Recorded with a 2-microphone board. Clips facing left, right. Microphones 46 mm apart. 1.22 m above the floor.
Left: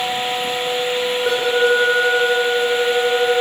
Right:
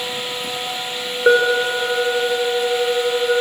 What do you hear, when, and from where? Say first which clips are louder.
1.3 s an alarm: right 3 dB; 40° right (ahead or behind), 4 m